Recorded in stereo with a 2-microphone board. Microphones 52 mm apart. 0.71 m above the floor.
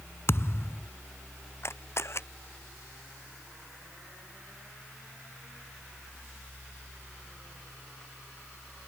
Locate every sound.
0.3 s a thud: 55° left (ahead or behind)
1.6 s a camera shutter: 55° left (ahead or behind)